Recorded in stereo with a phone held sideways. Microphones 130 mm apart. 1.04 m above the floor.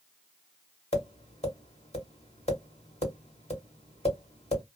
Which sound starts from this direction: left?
Tapping, at 0.9 s.